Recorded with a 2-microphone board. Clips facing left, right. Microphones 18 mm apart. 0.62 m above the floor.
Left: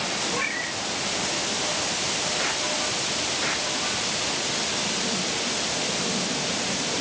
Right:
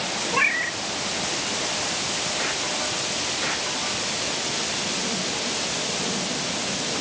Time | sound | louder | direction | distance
0.3 | a cat meowing | right 5 dB | 50° right (ahead or behind) | 0.7 m